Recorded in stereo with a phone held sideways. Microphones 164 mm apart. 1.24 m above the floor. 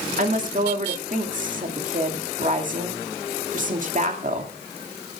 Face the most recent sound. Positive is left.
turn(degrees=-50)  # may be behind; listen again after turning